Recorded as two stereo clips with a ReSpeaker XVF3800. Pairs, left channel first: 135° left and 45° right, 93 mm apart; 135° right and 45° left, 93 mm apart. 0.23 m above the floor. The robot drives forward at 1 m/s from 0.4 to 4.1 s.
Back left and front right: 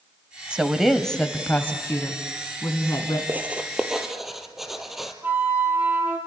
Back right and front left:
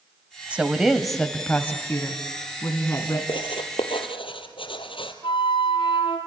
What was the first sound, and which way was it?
A woman speaking, 10° left.